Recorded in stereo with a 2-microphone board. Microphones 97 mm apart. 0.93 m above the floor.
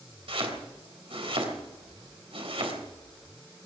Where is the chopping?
70° right (ahead or behind), 3 m.